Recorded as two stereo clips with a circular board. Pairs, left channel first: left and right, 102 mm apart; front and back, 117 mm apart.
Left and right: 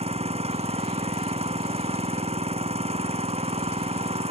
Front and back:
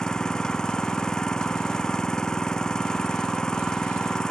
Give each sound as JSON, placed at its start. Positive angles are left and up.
{"t": 0.0, "sound": "an engine running", "azimuth_deg": -85}